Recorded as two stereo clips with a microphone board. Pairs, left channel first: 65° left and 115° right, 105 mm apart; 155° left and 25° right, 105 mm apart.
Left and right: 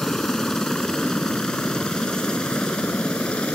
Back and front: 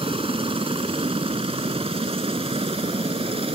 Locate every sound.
0.0 s a helicopter: 20° right; by 3.6 s 10° right